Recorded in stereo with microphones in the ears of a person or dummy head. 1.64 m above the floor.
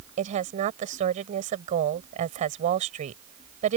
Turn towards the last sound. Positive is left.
turn(degrees=-50)  # may be behind; listen again after turning